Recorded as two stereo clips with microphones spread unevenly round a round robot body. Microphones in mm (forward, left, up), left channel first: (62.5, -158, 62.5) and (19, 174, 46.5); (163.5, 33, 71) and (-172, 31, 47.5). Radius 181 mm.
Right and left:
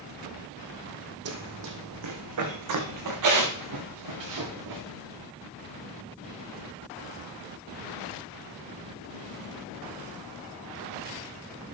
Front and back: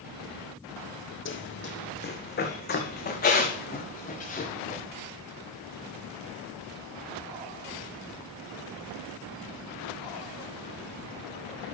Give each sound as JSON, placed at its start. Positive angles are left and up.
{"t": 1.2, "sound": "running footsteps", "azimuth_deg": 50, "distance_m": 1.7}